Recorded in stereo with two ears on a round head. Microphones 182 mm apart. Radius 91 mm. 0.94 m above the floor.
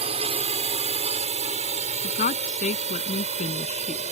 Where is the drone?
30° right (ahead or behind); by 4.1 s 35° right (ahead or behind).